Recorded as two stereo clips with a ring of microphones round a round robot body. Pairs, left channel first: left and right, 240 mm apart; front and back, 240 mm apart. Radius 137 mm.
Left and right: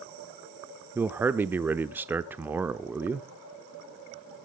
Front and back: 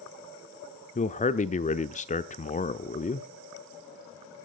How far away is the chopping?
No chopping in this recording.